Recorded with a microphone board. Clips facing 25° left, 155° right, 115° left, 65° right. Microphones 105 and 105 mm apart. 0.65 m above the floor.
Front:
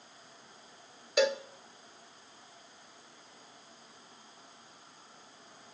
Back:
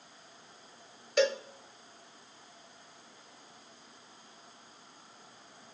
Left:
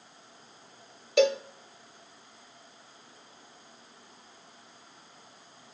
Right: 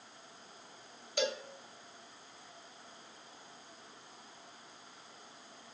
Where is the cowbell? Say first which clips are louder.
Even, left 12 dB; 110° left, 1.3 m.